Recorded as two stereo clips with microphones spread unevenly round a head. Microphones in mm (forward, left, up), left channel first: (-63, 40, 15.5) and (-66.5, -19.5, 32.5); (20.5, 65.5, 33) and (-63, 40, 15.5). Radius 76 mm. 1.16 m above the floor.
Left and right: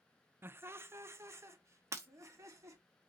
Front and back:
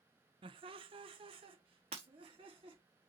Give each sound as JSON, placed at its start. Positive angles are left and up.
{"t": 0.4, "sound": "laughter", "azimuth_deg": -155, "distance_m": 0.7}
{"t": 1.9, "sound": "breaking glass", "azimuth_deg": -130, "distance_m": 1.2}